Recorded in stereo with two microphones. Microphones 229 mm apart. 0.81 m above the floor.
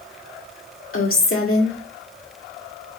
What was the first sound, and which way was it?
A woman speaking, 65° left (ahead or behind).